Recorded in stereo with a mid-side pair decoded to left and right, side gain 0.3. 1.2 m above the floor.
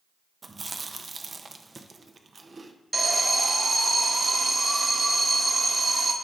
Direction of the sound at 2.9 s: 35° right.